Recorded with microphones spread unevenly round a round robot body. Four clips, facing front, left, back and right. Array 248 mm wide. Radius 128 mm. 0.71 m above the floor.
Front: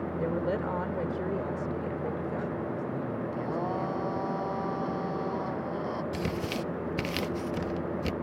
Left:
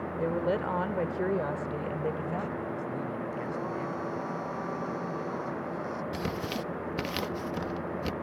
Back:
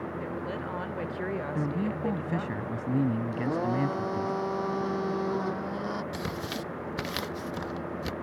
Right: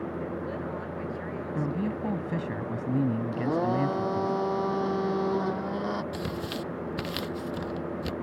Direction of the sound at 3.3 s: 115° right.